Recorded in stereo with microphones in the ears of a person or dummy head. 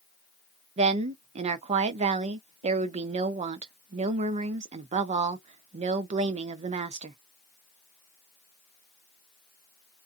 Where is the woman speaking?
45° right (ahead or behind), 0.5 m.